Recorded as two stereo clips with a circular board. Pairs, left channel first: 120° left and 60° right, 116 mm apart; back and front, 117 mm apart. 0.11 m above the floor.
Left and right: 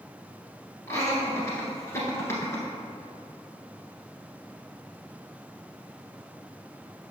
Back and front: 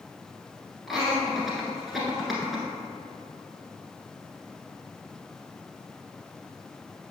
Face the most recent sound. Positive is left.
turn(degrees=90)